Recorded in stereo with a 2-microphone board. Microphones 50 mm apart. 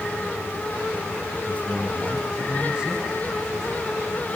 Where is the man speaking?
20° right (ahead or behind), 7 m; by 3.9 s 10° right (ahead or behind), 8.5 m.